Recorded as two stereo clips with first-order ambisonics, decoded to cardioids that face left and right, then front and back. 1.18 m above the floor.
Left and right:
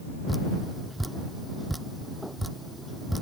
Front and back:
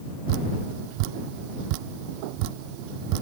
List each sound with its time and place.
0.3 s dripping: straight behind